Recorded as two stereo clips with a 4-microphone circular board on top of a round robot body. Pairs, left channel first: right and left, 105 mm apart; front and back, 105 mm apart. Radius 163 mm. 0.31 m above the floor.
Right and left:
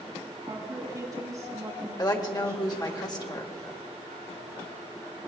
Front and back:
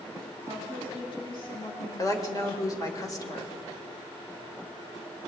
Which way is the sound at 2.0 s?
50° right.